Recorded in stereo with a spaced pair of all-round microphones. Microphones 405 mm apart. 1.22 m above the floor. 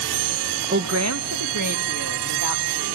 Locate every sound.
0.7 s a woman speaking: 25° right (ahead or behind), 0.6 m; by 3.0 s 50° right (ahead or behind), 3.5 m